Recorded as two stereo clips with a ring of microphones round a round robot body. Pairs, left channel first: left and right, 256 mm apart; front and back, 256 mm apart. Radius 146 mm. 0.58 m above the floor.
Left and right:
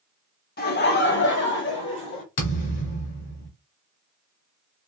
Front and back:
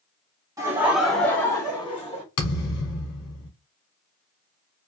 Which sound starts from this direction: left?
Laughter, at 0.6 s.